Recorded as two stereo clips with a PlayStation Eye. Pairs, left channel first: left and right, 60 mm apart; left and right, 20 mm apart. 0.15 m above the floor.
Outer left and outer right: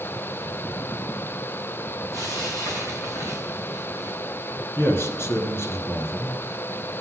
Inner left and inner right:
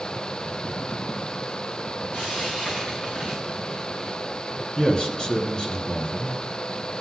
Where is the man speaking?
45° left (ahead or behind), 1.9 m.